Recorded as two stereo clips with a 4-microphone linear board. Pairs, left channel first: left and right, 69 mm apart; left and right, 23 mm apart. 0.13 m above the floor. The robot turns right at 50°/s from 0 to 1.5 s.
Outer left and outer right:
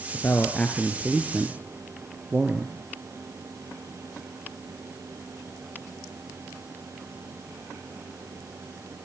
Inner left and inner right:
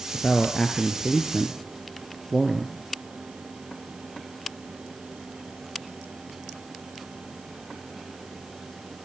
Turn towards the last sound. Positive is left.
turn(degrees=-20)  # may be behind; listen again after turning